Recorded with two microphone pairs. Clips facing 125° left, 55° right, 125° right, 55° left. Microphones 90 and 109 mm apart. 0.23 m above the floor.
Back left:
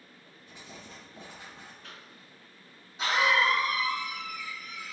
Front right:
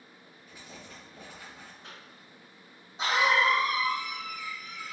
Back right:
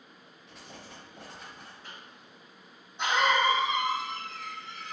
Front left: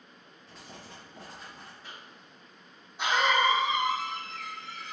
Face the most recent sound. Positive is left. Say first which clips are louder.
# even, even
turn(degrees=-15)